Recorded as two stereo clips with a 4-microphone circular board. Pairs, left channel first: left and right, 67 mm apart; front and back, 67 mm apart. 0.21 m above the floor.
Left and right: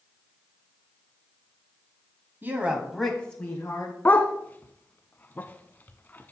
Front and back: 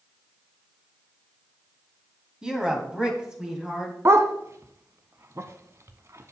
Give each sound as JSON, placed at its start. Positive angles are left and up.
{"t": 2.4, "sound": "a woman speaking", "azimuth_deg": -110, "distance_m": 1.5}
{"t": 4.0, "sound": "a dog barking", "azimuth_deg": 145, "distance_m": 0.6}